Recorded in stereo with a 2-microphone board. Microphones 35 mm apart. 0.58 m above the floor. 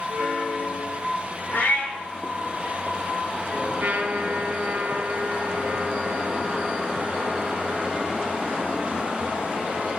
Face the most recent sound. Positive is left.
turn(degrees=-65)  # may be behind; listen again after turning